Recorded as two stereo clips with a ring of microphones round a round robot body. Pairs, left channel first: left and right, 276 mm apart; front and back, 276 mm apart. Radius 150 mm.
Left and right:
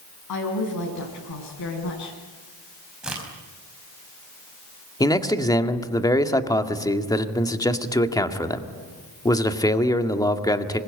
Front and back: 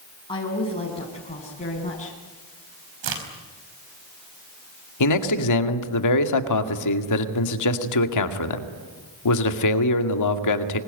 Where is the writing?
I don't hear writing.